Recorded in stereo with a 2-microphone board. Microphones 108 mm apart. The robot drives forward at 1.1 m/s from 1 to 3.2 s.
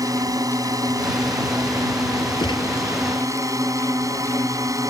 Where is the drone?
30° right (ahead or behind).